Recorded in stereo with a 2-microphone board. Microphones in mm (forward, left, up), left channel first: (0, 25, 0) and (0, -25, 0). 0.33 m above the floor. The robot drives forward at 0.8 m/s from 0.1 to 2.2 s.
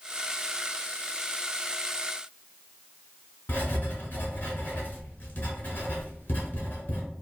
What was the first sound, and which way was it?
Writing, 35° left (ahead or behind).